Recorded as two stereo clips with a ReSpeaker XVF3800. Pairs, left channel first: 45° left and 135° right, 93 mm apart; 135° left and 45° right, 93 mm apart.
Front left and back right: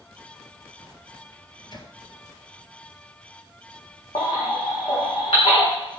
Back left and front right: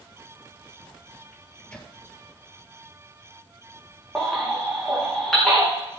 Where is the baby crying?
45° left, 4.5 m.